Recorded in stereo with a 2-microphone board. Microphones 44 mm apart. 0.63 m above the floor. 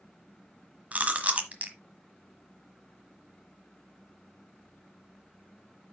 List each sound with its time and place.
0.9 s chewing: 35° right (ahead or behind), 1.3 m